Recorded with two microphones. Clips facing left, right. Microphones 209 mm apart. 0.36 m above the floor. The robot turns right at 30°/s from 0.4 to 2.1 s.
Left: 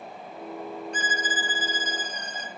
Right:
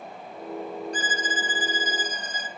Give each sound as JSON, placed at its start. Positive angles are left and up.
{"t": 0.9, "sound": "a violin", "azimuth_deg": -35, "distance_m": 1.0}